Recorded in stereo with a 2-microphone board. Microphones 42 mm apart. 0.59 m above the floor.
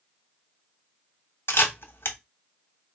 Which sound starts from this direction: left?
A camera shutter, at 1.5 s.